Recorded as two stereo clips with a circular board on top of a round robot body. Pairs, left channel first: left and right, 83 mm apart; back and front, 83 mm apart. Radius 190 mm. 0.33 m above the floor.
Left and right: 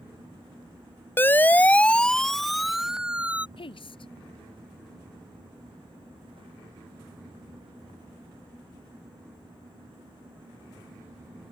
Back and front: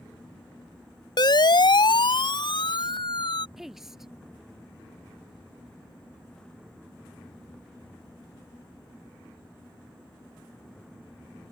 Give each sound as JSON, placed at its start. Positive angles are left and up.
{"t": 1.2, "sound": "a siren", "azimuth_deg": 155}
{"t": 3.6, "sound": "a woman speaking", "azimuth_deg": 85}